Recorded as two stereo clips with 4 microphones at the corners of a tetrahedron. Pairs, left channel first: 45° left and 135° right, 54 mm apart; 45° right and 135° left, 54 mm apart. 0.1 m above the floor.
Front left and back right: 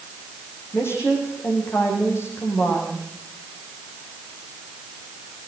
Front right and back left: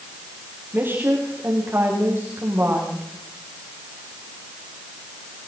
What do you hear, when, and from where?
0.7 s a woman speaking: 80° left, 7.5 m